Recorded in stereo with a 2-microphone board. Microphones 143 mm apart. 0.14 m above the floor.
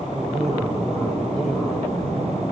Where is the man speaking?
5° left (ahead or behind), 7.5 m.